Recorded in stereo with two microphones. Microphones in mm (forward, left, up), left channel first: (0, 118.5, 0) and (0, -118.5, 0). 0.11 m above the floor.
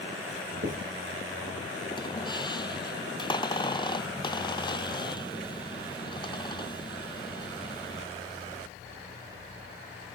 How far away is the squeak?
About 0.7 m.